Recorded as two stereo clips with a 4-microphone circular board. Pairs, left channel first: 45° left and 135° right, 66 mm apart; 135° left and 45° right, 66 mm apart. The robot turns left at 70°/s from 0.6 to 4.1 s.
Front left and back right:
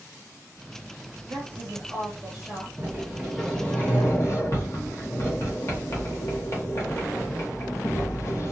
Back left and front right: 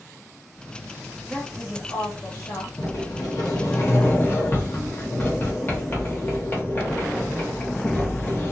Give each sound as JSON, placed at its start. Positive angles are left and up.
{"t": 1.3, "sound": "a woman speaking", "azimuth_deg": -130, "distance_m": 1.4}
{"t": 2.8, "sound": "a sliding door", "azimuth_deg": 175, "distance_m": 1.1}